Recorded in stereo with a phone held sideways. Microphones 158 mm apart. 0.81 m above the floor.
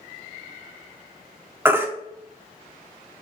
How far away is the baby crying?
About 0.8 m.